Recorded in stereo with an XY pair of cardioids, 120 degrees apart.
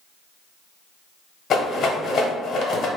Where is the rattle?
45° left, 0.9 m.